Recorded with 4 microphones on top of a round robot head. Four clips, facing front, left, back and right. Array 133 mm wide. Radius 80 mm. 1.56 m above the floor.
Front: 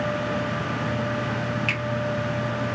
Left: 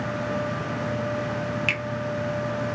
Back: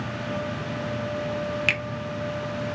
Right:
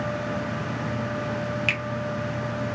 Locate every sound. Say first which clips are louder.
1.7 s a finger snap: even, even; 175° right, 1.2 m